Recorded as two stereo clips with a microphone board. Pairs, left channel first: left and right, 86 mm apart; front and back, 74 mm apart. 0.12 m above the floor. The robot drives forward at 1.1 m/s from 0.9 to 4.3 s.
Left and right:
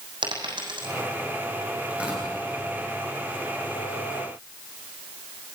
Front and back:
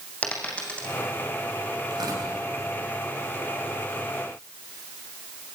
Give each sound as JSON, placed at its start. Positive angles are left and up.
{"t": 0.2, "sound": "a dropped coin", "azimuth_deg": -70, "distance_m": 4.0}
{"t": 1.9, "sound": "tearing paper", "azimuth_deg": -165, "distance_m": 7.5}